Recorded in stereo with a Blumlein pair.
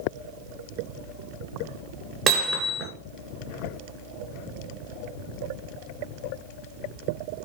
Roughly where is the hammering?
Ahead right.